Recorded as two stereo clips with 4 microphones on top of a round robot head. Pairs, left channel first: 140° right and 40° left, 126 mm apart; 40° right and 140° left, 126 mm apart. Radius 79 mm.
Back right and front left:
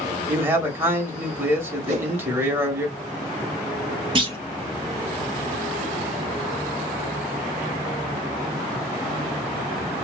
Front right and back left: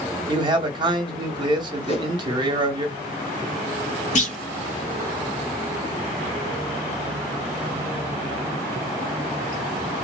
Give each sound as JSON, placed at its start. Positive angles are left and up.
{"t": 0.3, "sound": "a man speaking", "azimuth_deg": 105, "distance_m": 1.0}
{"t": 1.9, "sound": "a whoosh", "azimuth_deg": 0, "distance_m": 0.7}
{"t": 4.2, "sound": "a clunk", "azimuth_deg": -10, "distance_m": 0.7}